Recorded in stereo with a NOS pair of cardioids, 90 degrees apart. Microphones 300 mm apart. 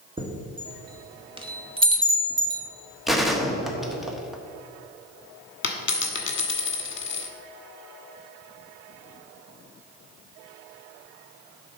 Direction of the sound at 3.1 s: Straight ahead.